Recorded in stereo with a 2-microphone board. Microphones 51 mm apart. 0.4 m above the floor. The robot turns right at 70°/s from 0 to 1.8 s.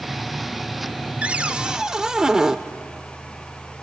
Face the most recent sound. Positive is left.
turn(degrees=-10)  # may be behind; listen again after turning